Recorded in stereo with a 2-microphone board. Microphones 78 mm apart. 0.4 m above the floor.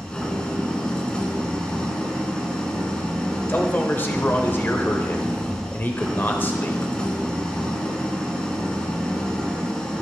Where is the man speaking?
30° left (ahead or behind), 1.2 m.